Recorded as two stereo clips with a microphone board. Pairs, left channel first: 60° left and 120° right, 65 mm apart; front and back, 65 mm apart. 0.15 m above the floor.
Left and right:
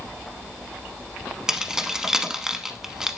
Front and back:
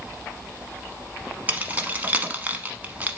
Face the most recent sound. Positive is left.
turn(degrees=170)